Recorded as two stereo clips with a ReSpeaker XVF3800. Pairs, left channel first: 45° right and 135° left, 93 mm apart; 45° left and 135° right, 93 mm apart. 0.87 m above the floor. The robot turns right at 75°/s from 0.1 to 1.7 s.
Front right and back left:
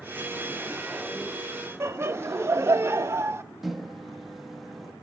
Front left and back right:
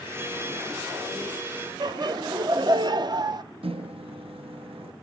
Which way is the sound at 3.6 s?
135° right.